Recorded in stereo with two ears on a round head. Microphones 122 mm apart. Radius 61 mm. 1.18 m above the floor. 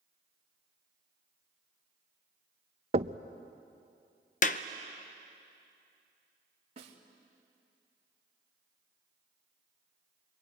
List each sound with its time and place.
2.9 s knocking: 45° right (ahead or behind), 0.6 m
4.4 s a clap: 60° left (ahead or behind), 0.7 m
6.8 s a snare drum: 45° right (ahead or behind), 2.5 m